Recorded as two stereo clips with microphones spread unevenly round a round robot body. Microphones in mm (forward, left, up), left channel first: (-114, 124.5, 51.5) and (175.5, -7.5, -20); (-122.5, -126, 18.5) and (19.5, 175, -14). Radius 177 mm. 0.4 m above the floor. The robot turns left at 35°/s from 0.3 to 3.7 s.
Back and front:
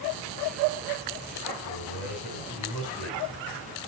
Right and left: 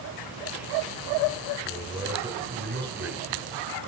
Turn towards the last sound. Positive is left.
turn(degrees=90)